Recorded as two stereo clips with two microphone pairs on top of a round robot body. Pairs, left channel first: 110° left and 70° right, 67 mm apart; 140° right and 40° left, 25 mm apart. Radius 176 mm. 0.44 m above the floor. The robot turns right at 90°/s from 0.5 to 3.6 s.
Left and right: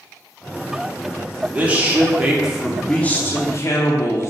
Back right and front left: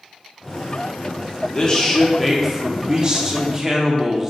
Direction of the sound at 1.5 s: 95° right.